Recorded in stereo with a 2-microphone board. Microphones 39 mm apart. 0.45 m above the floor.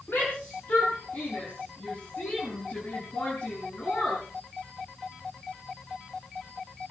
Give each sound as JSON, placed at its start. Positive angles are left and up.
{"t": 0.1, "sound": "a shout", "side_deg": 65, "distance_m": 6.0}